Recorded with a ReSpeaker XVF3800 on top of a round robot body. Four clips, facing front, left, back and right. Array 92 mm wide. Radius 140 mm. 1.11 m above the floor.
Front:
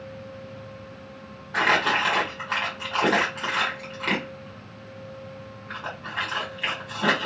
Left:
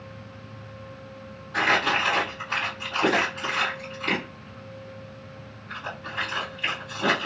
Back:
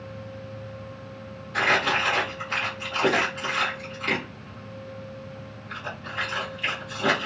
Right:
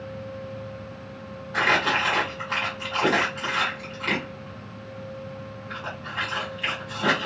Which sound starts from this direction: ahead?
Crumpling, at 1.5 s.